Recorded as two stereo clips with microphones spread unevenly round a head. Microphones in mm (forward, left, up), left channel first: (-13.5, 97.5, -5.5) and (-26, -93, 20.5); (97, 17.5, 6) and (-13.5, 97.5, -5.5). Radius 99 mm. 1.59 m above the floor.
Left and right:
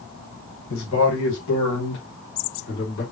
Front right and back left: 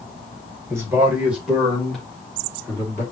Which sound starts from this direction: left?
A man speaking, at 0.7 s.